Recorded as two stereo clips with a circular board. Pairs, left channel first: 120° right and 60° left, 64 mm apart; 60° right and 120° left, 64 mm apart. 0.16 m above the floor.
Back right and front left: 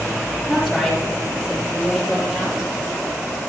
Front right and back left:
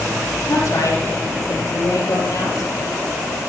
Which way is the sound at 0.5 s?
50° right.